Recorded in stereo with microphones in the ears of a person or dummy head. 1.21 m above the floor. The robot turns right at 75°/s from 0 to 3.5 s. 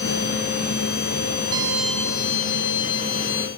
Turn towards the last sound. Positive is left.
turn(degrees=125)